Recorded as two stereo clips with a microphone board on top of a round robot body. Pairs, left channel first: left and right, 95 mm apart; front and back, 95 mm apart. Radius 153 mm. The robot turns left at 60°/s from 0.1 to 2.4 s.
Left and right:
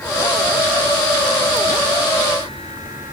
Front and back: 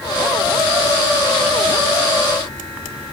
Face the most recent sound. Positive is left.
No sound to turn to.